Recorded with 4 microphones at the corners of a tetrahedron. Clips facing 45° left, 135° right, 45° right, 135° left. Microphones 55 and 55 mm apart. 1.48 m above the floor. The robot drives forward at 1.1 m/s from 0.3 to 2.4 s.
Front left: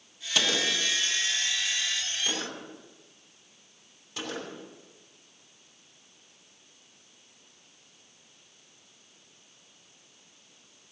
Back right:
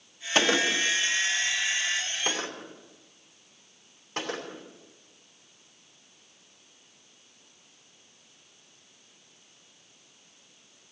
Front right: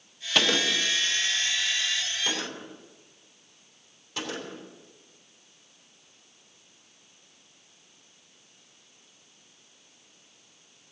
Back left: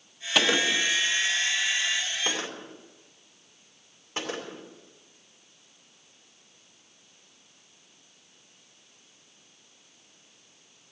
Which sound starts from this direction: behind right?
A gunshot, at 0.3 s.